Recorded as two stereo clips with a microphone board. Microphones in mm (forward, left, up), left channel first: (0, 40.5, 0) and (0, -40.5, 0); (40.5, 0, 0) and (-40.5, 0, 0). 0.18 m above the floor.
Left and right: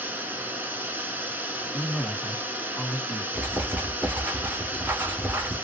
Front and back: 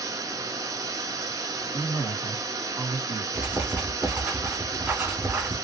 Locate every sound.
0.0 s running water: 150° right, 0.8 m
1.7 s a man speaking: straight behind, 1.1 m
3.3 s writing: 130° right, 1.8 m